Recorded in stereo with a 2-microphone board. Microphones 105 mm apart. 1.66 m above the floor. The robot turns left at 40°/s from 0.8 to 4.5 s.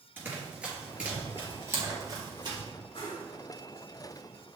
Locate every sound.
0.2 s running footsteps: 20° right (ahead or behind), 1.9 m; by 2.6 s 50° right (ahead or behind), 3 m
2.9 s a whoosh: 50° left (ahead or behind), 2.5 m; by 3.3 s 45° left (ahead or behind), 2.5 m